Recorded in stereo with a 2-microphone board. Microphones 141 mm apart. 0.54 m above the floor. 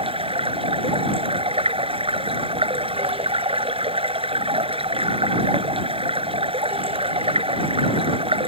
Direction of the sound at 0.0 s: 40° right (ahead or behind).